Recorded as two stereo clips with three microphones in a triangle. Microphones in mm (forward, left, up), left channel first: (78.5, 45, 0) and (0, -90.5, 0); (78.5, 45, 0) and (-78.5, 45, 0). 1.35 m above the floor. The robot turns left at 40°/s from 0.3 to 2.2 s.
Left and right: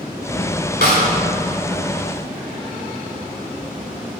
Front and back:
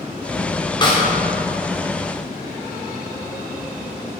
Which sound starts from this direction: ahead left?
A snare drum, at 0.8 s.